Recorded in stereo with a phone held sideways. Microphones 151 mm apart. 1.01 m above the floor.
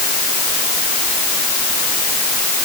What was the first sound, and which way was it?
Only background noise.